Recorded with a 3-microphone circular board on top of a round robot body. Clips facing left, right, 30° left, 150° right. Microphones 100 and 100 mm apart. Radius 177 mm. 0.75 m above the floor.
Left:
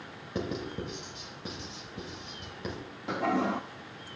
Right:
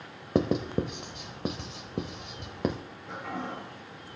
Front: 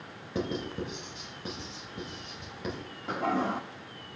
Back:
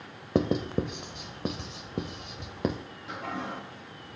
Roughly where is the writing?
Behind right.